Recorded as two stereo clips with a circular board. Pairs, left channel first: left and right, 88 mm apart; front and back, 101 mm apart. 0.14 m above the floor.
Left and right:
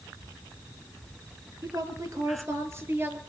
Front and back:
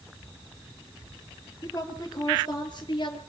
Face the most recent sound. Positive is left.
turn(degrees=-30)